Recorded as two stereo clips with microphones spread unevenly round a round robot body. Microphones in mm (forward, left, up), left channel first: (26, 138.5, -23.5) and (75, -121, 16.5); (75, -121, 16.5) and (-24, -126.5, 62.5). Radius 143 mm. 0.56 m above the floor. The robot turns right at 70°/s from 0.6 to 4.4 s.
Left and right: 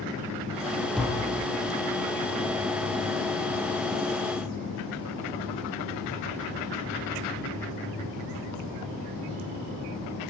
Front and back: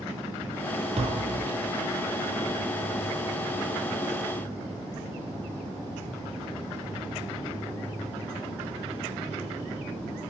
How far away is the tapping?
About 4 m.